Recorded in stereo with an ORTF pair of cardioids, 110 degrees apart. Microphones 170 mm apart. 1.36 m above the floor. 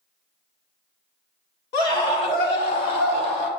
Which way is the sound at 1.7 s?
65° left.